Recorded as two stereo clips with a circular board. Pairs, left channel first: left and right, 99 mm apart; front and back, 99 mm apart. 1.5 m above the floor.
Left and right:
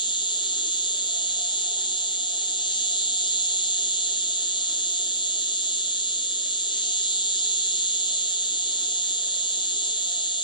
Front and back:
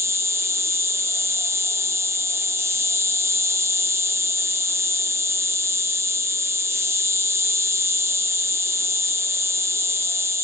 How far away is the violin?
No violin in this recording.